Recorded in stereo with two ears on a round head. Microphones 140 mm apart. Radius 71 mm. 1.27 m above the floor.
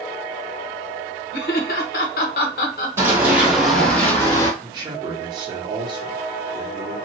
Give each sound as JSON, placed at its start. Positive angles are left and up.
{"t": 1.3, "sound": "laughter", "side_deg": 60, "distance_m": 0.9}
{"t": 3.0, "sound": "running footsteps", "side_deg": -20, "distance_m": 1.8}
{"t": 4.6, "sound": "a man speaking", "side_deg": -25, "distance_m": 1.2}